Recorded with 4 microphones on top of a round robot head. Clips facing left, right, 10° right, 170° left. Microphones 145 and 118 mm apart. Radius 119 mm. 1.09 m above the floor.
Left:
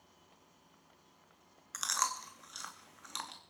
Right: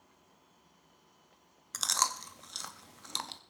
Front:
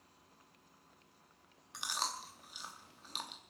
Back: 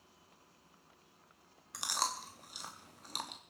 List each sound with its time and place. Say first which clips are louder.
1.7 s chewing: right 3 dB, back 3 dB; 135° right, 0.6 m